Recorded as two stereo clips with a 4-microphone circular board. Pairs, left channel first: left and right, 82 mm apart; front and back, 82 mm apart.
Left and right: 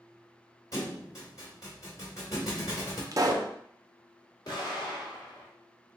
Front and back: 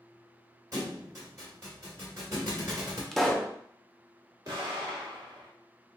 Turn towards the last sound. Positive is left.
turn(degrees=130)